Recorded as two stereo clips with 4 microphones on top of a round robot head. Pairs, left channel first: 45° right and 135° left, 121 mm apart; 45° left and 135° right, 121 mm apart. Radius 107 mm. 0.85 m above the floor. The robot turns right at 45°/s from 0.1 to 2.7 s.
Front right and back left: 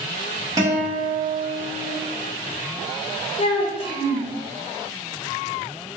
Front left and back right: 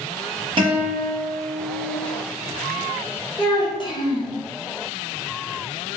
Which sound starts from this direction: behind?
A guitar, at 0.6 s.